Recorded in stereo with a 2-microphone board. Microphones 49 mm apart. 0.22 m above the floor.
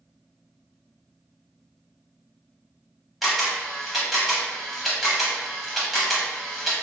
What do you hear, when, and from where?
3.2 s a camera shutter: centre (ahead or behind), 0.8 m